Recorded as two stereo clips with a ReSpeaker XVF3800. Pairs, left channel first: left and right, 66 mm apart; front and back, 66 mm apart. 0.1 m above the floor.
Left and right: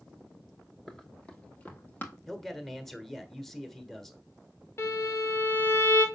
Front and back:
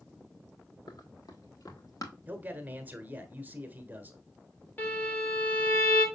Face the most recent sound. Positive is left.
turn(degrees=50)